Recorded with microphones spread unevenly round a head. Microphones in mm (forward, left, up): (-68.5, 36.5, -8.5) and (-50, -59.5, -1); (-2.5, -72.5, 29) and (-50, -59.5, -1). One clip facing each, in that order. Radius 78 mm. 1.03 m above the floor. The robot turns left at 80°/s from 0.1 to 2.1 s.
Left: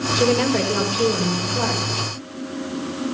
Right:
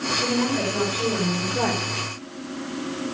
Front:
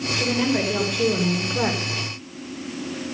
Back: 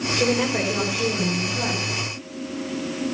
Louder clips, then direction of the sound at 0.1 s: Left 6 dB, back 1 dB; 105° left.